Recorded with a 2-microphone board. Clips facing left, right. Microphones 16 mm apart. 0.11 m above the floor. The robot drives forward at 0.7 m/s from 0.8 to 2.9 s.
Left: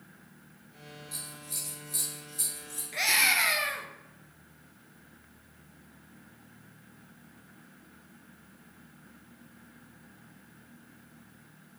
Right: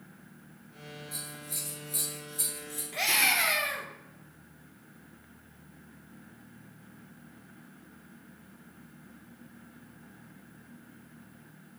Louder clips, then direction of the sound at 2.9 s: Left 1 dB; 20° left (ahead or behind).